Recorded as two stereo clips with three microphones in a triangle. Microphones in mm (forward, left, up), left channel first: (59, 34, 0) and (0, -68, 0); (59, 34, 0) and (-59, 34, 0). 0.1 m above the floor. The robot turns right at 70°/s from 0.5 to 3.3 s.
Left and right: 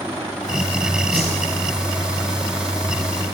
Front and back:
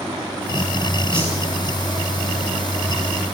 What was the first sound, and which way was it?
A whoosh, 85° right.